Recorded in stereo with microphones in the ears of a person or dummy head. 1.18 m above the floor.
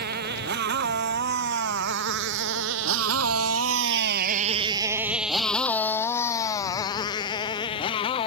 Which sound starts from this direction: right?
A motorcycle, at 0.0 s.